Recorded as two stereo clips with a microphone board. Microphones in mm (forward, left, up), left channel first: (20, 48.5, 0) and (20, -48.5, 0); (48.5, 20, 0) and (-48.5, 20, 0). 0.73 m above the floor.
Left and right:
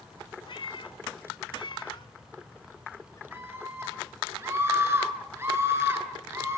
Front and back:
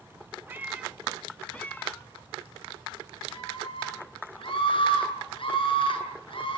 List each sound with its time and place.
0.5 s a cat meowing: 115° left, 1.2 m; by 3.2 s 35° left, 1.7 m
3.3 s a scream: 25° right, 8 m